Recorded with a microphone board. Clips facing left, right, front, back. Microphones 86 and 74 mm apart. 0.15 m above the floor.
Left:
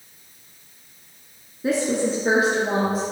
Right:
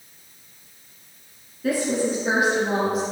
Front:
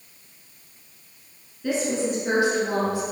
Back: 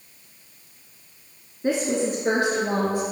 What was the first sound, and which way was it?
A woman speaking, 145° left.